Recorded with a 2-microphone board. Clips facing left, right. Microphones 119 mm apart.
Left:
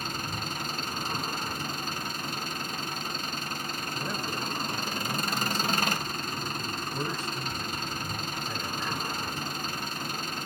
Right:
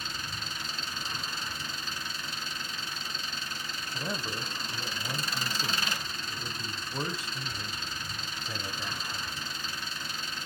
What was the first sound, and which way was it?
An engine running, 50° left (ahead or behind).